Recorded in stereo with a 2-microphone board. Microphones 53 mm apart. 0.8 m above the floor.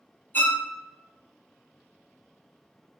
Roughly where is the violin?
Left.